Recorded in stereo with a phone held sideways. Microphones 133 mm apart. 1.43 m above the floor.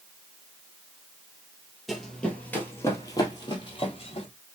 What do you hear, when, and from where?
1.9 s running footsteps: centre (ahead or behind), 1.5 m; by 4.3 s 45° left (ahead or behind), 1.9 m